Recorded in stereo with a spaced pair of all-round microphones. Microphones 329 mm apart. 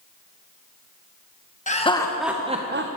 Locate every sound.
1.7 s laughter: 20° left (ahead or behind), 1.1 m; by 2.9 s 40° right (ahead or behind), 0.8 m